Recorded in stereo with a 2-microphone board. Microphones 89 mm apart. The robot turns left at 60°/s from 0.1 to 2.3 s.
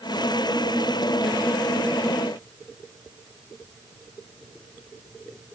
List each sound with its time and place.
Only background noise.